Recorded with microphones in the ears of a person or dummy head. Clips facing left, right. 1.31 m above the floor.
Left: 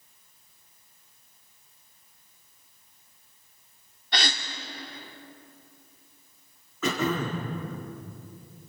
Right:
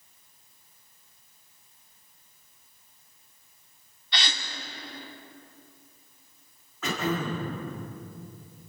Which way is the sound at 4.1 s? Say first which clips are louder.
Left 4 dB; 40° left (ahead or behind).